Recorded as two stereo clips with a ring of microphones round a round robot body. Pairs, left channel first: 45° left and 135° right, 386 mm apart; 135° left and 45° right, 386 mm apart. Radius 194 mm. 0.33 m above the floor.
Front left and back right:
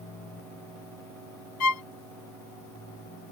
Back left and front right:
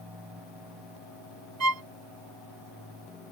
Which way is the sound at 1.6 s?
Straight ahead.